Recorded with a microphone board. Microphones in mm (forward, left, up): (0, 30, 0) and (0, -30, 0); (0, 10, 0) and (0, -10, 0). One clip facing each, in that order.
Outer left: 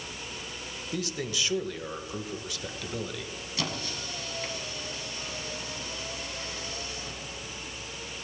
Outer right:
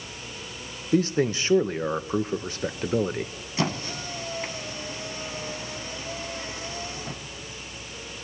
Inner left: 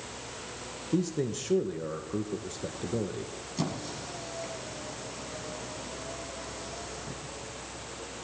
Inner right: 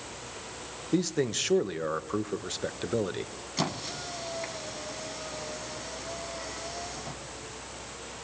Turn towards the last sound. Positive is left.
turn(degrees=-30)  # may be behind; listen again after turning